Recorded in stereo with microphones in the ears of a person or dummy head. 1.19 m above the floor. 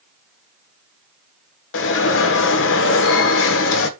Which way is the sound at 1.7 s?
65° left (ahead or behind).